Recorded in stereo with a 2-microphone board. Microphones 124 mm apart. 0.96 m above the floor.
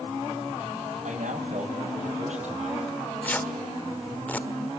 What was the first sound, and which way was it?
A man speaking, 80° right.